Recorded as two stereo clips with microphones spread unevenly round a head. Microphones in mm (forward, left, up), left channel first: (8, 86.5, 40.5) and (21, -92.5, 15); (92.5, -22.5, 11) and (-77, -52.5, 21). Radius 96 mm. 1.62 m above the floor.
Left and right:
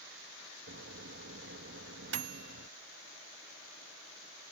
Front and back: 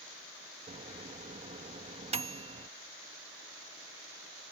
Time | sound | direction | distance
0.7 | a microwave | 120° right | ?